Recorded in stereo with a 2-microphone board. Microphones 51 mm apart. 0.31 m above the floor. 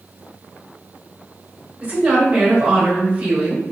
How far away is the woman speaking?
About 1.4 m.